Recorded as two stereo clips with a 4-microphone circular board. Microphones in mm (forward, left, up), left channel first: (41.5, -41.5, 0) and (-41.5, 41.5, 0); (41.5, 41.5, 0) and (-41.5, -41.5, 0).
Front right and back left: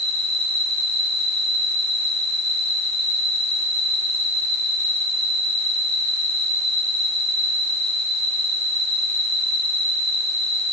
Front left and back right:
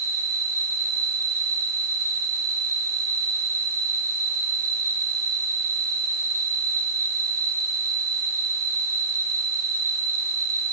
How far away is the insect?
About 5.5 m.